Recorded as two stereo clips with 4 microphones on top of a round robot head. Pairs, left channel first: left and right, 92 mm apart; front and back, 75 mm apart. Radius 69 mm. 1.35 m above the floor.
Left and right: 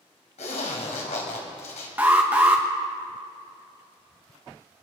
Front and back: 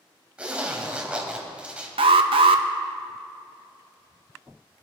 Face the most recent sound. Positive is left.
turn(degrees=-170)